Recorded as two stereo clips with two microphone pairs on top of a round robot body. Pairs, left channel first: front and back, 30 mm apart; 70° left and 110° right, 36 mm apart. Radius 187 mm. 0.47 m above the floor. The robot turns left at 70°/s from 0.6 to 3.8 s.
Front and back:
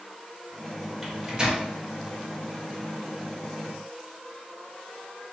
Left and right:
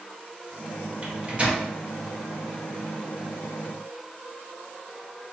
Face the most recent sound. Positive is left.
turn(degrees=65)